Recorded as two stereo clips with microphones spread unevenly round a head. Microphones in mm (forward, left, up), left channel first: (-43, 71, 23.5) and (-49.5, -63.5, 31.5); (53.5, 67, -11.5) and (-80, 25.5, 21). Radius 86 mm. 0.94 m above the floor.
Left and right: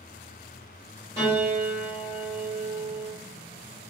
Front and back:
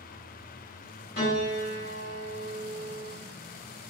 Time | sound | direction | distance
1.2 | a piano | 25° right | 1.0 m